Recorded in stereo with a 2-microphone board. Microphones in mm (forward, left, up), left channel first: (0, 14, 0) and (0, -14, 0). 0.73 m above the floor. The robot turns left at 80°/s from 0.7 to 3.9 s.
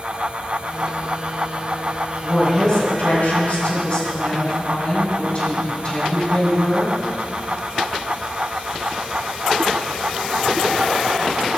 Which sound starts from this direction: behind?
A woman speaking, at 2.2 s.